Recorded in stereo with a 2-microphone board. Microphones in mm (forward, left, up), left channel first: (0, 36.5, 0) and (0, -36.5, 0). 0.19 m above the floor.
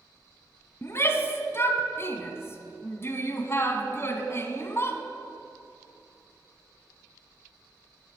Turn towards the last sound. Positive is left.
turn(degrees=35)  # may be behind; listen again after turning